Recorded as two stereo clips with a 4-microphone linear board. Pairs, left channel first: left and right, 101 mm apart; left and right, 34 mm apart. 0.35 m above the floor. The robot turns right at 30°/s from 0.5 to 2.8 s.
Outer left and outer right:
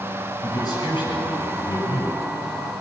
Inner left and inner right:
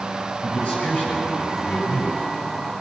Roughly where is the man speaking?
Ahead left.